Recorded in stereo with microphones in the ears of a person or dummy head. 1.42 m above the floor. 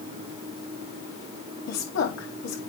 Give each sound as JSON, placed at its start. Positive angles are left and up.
{"t": 1.7, "sound": "a woman speaking", "side_deg": 80, "distance_m": 3.0}